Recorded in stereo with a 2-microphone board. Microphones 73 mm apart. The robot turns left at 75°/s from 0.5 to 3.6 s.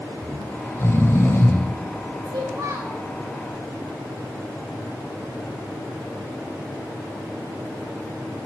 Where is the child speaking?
105° right, 3 m; by 3.0 s 160° right, 3 m.